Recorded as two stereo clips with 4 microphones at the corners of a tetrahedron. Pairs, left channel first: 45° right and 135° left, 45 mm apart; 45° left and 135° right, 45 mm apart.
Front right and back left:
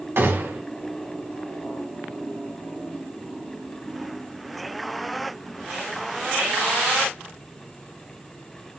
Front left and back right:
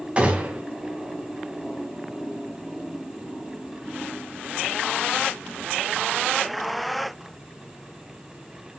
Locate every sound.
0.2 s a gunshot: 165° left, 2 m